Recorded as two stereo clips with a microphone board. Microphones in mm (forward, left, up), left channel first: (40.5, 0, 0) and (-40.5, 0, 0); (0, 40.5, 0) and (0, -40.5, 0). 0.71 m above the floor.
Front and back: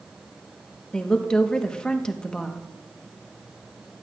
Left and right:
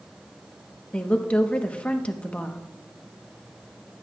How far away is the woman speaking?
About 0.9 m.